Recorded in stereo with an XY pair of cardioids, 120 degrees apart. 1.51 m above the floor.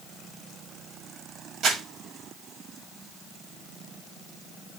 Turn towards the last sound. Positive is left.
turn(degrees=-55)